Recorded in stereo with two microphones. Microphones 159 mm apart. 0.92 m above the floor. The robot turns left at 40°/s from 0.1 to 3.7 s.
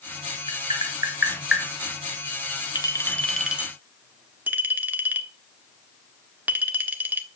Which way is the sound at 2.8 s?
25° left (ahead or behind).